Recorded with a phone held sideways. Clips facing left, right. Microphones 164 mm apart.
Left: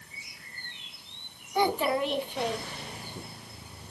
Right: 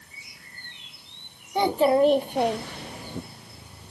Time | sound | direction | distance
1.6 | a child speaking | 25° right (ahead or behind) | 1.3 m